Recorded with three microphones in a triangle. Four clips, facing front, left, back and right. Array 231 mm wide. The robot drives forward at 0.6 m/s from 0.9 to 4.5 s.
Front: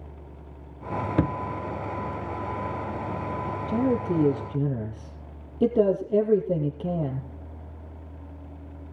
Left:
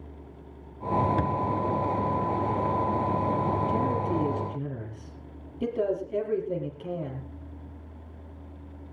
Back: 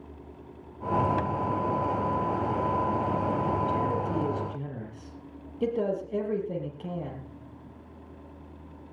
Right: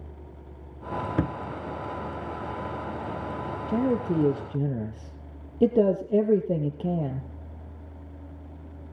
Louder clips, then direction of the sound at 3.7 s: Right 1 dB, front 3 dB; 55° right.